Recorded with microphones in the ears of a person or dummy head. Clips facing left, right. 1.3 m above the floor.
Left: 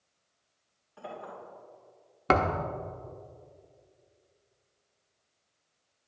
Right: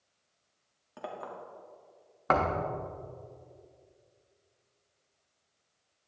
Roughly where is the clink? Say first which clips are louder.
Right 1 dB; right.